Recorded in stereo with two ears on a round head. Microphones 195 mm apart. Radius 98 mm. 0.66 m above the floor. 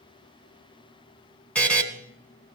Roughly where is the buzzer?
Centre.